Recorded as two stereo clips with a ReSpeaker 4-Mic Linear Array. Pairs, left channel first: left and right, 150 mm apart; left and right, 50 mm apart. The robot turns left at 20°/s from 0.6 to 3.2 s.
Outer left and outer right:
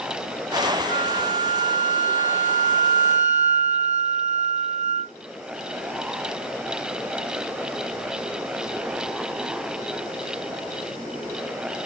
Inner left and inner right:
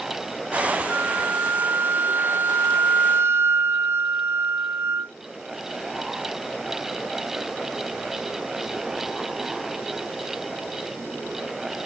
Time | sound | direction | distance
0.9 | a flute | 55° right | ?